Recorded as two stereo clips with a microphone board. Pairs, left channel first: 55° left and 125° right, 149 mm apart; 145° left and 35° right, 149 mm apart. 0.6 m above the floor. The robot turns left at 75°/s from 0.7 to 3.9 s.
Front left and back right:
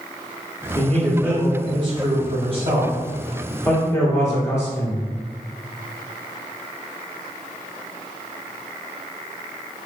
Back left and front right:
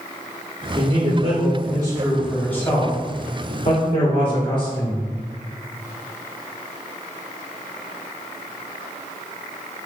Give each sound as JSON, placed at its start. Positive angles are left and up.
{"t": 0.8, "sound": "a man speaking", "azimuth_deg": -10, "distance_m": 1.5}